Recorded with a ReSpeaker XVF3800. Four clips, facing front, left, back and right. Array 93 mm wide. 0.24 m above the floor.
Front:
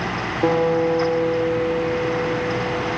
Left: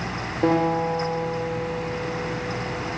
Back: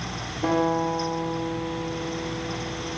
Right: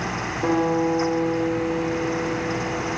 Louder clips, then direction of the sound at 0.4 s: Even, front 5 dB; 45° left.